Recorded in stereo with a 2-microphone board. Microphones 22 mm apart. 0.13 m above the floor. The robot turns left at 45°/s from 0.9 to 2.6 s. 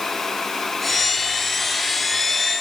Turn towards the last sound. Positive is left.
No sound to turn to.